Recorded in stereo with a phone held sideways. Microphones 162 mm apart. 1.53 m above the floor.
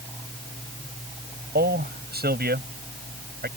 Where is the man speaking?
75° right (ahead or behind).